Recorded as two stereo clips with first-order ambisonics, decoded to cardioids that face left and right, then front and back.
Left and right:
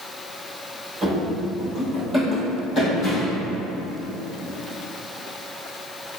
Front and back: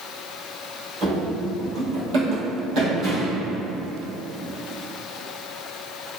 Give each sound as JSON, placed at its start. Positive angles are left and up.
{"t": 1.0, "sound": "running footsteps", "azimuth_deg": -150, "distance_m": 1.1}